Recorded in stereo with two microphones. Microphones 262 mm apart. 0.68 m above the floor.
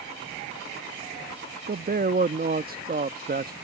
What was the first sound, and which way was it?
A man speaking, 35° right (ahead or behind).